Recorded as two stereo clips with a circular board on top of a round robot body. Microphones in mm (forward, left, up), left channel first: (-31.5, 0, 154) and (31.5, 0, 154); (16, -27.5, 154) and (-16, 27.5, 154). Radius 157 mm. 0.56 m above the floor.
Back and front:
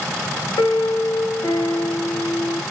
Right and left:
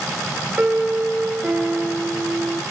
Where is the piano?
160° right, 1.3 m.